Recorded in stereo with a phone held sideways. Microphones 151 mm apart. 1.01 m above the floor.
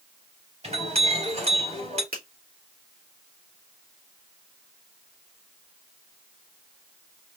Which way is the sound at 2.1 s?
75° right (ahead or behind).